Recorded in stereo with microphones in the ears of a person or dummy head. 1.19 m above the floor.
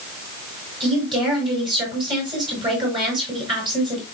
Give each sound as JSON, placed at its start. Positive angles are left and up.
{"t": 0.8, "sound": "a woman speaking", "side_deg": -25, "distance_m": 6.0}